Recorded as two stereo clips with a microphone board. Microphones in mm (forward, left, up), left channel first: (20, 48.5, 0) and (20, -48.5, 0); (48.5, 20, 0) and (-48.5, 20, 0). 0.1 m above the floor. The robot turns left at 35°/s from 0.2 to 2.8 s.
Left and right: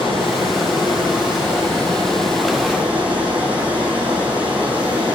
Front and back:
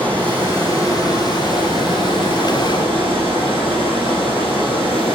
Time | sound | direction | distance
0.0 | running water | 75° left | 3 m